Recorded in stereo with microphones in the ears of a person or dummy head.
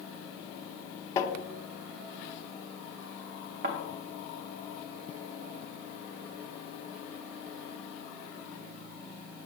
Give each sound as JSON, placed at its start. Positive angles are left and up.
{"t": 1.2, "sound": "tapping", "side_deg": 25, "distance_m": 0.6}
{"t": 3.6, "sound": "a thud", "side_deg": -45, "distance_m": 0.7}